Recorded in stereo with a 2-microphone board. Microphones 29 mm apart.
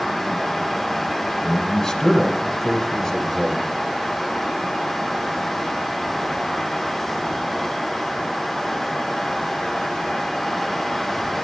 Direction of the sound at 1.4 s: 20° left (ahead or behind).